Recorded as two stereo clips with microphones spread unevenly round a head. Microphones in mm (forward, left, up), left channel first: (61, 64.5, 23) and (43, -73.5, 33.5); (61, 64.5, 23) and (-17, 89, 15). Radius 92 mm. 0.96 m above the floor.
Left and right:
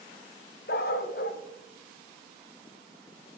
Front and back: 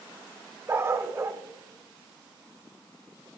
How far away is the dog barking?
About 0.6 m.